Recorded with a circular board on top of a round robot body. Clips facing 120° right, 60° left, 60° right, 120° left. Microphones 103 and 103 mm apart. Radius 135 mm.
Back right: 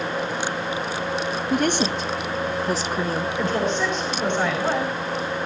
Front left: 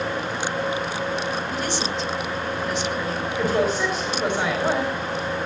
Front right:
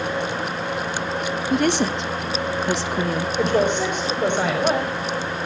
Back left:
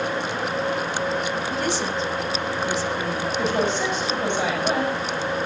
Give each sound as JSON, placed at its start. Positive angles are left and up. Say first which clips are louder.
{"t": 1.5, "sound": "a woman speaking", "louder": "back right 5 dB, front right 5 dB", "azimuth_deg": -85, "distance_m": 1.9}
{"t": 3.4, "sound": "a woman speaking", "louder": "front left 3 dB, front right 4 dB", "azimuth_deg": -25, "distance_m": 5.5}